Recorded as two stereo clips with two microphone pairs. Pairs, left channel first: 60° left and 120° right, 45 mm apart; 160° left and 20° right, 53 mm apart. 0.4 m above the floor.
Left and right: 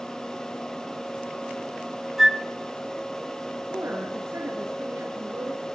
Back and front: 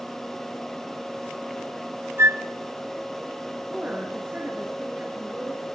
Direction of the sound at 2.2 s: 35° right.